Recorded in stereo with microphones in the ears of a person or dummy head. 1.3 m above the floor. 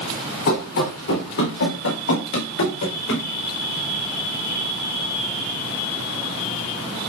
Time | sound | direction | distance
0.5 | running footsteps | 65° left (ahead or behind) | 4.5 m